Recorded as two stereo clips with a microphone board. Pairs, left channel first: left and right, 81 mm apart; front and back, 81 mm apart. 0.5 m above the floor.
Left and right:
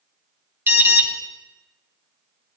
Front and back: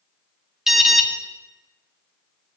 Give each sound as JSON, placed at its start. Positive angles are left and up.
{"t": 0.7, "sound": "an alarm", "azimuth_deg": -100, "distance_m": 1.0}